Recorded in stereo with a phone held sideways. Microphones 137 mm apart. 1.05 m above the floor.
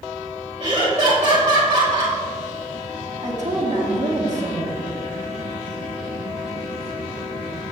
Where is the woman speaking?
60° right (ahead or behind), 1.4 m.